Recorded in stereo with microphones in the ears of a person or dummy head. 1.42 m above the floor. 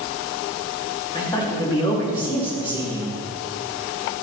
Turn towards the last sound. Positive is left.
turn(degrees=25)  # may be behind; listen again after turning